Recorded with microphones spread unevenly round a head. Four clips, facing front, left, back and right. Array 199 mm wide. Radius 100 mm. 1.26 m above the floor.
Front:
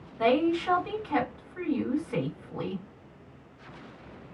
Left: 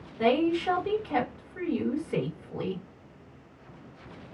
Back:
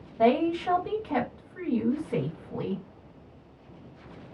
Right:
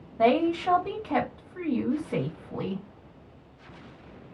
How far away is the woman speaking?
About 1.8 m.